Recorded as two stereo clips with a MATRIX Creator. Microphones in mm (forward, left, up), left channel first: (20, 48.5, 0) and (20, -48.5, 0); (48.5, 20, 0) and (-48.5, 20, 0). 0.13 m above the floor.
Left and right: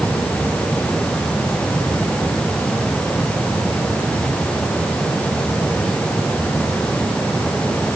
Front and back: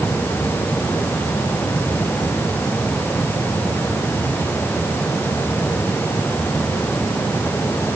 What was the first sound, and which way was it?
Only background noise.